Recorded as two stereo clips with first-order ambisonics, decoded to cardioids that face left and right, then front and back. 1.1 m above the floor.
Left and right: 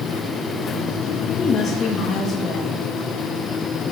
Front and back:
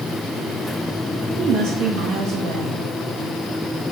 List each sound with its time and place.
1.4 s a woman speaking: 145° left, 1.4 m